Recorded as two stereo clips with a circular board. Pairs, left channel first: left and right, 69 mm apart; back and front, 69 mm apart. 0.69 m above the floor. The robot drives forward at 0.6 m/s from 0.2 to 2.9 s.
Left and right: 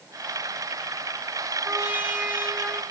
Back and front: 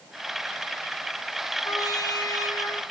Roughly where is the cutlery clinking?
No cutlery clinking in this recording.